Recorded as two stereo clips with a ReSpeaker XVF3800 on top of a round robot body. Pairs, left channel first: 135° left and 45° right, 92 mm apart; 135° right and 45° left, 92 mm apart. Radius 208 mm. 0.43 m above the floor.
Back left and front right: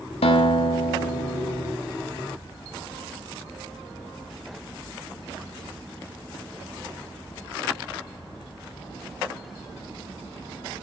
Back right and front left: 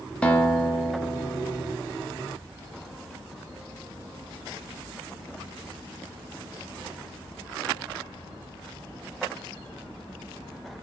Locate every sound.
0.2 s a guitar: 145° left, 0.8 m